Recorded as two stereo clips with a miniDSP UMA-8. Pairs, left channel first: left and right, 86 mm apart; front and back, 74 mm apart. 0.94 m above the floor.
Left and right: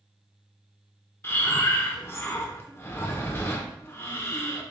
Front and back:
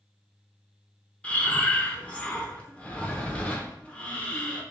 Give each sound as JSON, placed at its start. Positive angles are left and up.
{"t": 1.2, "sound": "breathing", "azimuth_deg": 60, "distance_m": 0.6}